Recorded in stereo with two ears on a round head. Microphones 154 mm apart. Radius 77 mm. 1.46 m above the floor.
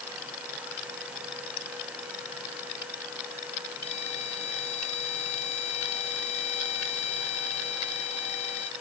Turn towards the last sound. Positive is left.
turn(degrees=35)  # may be behind; listen again after turning